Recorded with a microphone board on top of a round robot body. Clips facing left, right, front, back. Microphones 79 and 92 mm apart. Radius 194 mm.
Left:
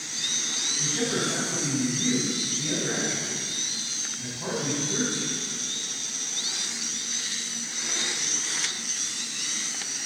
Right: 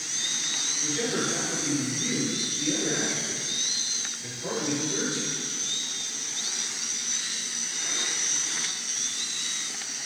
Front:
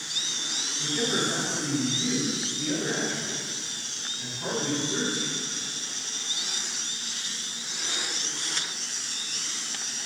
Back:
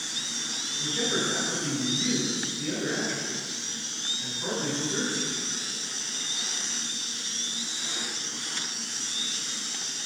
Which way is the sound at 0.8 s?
80° left.